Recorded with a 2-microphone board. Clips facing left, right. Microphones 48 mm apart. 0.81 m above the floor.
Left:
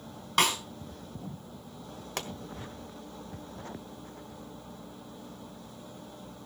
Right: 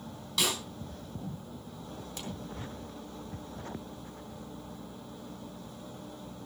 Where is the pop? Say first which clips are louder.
Left 6 dB; 85° left, 1.5 m.